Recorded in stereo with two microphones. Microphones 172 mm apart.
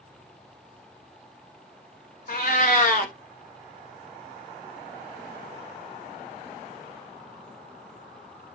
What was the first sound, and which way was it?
A cat meowing, 55° left (ahead or behind).